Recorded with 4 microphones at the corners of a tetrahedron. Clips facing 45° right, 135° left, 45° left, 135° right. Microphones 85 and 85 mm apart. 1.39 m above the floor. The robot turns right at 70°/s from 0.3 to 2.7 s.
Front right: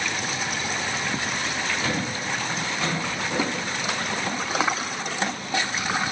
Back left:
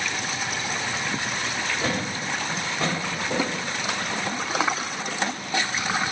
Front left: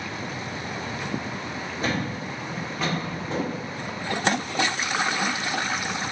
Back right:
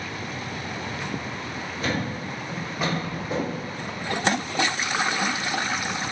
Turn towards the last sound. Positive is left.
turn(degrees=145)